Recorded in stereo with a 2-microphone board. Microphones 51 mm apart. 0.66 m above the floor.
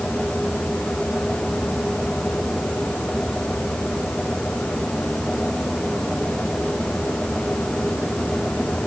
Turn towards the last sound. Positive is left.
No sound to turn to.